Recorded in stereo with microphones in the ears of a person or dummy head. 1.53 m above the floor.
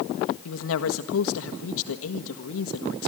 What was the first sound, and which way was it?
A woman speaking, 75° left (ahead or behind).